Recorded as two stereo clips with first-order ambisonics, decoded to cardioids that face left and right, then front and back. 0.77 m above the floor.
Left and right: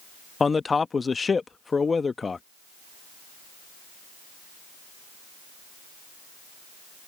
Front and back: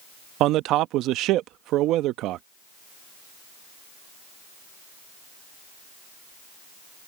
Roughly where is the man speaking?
Behind.